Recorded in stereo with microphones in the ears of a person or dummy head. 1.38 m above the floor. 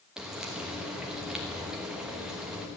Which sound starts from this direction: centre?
Frying, at 0.2 s.